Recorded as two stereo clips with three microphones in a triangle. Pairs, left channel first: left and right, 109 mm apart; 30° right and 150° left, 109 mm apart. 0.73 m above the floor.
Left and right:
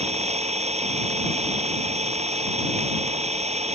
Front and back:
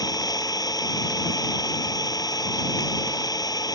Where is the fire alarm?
I don't hear a fire alarm.